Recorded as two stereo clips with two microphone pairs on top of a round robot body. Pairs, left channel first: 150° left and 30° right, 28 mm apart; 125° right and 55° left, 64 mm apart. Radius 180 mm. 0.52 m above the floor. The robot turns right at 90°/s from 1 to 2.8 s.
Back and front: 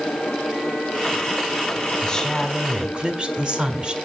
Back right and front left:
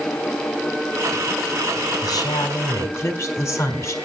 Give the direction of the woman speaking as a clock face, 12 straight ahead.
5 o'clock.